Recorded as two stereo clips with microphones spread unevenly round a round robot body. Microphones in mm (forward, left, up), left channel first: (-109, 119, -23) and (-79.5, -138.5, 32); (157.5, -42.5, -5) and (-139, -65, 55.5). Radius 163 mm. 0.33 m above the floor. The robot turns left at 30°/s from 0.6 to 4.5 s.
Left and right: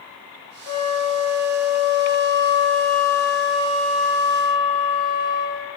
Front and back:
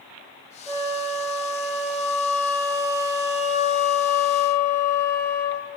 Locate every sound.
0.7 s a flute: 85° left, 6.5 m; by 5.7 s 30° right, 6.5 m